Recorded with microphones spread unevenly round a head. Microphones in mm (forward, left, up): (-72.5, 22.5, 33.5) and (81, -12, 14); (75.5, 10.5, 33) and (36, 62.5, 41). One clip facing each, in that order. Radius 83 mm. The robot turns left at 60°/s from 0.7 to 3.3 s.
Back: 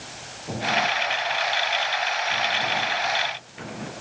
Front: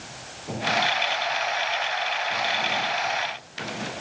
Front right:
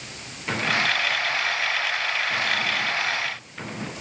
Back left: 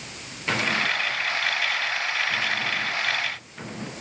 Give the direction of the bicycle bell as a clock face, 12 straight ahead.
I don't hear a bicycle bell.